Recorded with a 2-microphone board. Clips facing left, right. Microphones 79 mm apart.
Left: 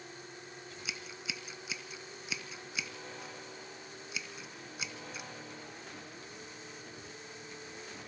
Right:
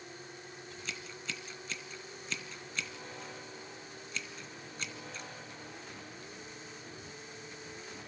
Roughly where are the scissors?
Centre.